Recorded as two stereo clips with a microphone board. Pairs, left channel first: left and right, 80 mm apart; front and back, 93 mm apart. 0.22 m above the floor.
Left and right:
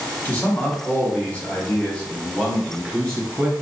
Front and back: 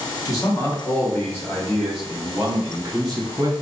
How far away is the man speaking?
About 1.5 m.